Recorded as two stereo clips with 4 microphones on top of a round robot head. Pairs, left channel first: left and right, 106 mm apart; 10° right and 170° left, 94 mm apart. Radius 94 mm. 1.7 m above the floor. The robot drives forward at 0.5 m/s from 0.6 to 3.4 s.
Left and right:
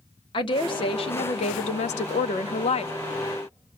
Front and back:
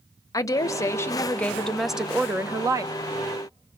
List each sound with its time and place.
0.3 s a woman speaking: 45° left, 1.0 m; by 2.9 s 120° left, 0.8 m